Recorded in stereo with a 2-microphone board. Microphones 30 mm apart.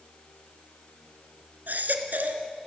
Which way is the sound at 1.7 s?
70° right (ahead or behind).